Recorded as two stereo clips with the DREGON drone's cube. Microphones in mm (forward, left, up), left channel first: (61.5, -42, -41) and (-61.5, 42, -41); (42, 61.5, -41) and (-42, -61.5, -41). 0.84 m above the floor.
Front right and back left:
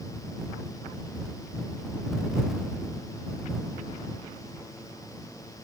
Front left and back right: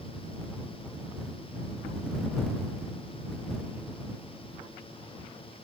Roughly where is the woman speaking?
I don't hear a woman speaking.